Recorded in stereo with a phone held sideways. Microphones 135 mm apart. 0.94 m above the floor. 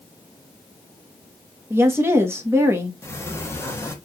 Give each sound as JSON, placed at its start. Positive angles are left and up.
{"t": 1.7, "sound": "a woman speaking", "side_deg": -20, "distance_m": 1.1}
{"t": 3.0, "sound": "a sliding door", "side_deg": 20, "distance_m": 0.9}